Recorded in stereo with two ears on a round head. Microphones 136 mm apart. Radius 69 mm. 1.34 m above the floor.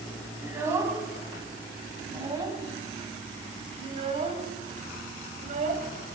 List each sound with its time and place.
0.4 s a child speaking: 15° right (ahead or behind), 6 m; by 6.1 s 50° right (ahead or behind), 4.5 m